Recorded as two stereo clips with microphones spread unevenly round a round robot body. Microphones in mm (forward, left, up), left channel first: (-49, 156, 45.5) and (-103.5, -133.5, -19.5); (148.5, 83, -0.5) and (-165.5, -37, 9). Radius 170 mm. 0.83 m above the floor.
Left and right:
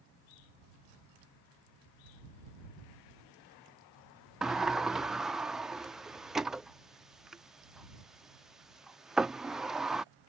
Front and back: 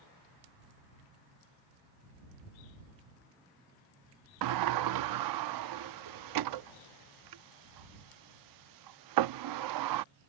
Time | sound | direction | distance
4.4 | a sliding door | 170° left | ?